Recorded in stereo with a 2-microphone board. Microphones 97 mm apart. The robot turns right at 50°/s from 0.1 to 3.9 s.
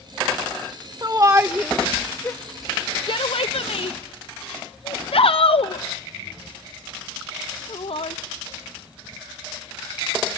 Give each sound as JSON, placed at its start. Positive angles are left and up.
{"t": 1.0, "sound": "a shout", "side_deg": -40, "distance_m": 0.7}